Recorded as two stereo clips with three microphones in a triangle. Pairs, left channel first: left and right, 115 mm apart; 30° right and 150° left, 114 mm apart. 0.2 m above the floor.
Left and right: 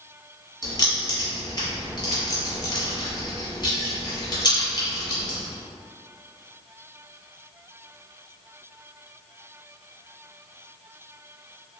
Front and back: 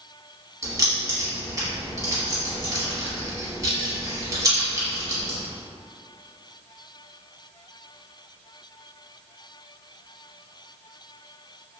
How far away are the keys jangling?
About 1.0 m.